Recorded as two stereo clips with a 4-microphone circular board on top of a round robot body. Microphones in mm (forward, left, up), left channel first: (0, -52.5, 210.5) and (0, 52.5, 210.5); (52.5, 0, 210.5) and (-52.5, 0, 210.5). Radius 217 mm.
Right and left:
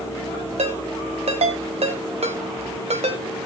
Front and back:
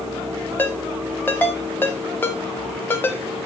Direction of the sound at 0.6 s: 70° left.